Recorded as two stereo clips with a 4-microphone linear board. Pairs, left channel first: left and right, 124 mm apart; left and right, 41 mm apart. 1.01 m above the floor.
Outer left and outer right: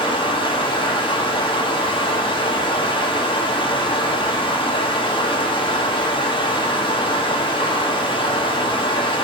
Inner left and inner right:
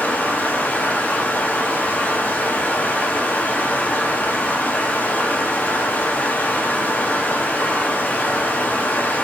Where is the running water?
40° left (ahead or behind), 0.8 m.